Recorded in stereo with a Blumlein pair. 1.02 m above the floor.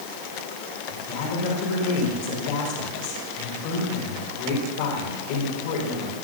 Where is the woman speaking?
50° left, 4 m.